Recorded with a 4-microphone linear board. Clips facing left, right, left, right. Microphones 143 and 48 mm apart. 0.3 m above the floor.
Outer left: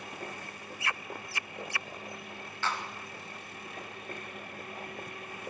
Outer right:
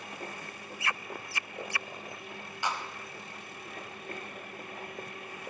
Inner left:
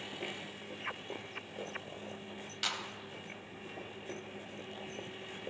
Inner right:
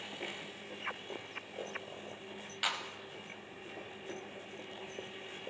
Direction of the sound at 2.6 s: 15° right (ahead or behind).